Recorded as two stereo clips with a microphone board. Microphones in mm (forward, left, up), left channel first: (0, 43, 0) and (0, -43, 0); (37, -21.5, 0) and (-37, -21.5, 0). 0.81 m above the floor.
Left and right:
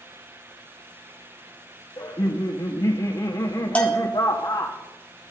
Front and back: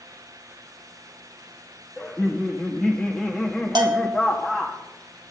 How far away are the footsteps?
I don't hear footsteps.